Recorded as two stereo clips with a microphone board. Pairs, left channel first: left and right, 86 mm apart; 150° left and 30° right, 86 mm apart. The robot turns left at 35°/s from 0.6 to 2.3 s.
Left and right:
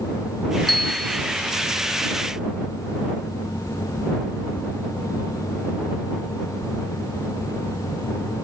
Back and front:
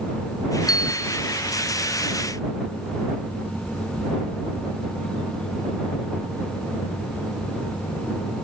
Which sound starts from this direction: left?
A bell, at 0.7 s.